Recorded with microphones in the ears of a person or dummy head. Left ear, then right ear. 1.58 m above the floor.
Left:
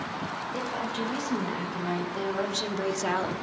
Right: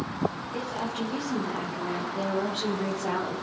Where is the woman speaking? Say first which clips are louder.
Left 1 dB; 45° left (ahead or behind), 3 m; by 3.4 s 85° left, 1.2 m.